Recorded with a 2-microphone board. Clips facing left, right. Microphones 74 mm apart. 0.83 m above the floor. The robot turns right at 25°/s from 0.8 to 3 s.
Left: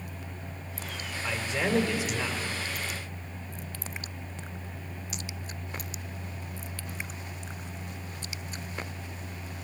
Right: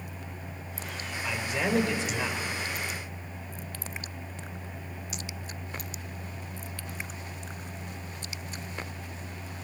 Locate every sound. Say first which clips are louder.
1.2 s a man speaking: even; 30° left (ahead or behind), 3.5 m; by 2.4 s centre (ahead or behind), 3.5 m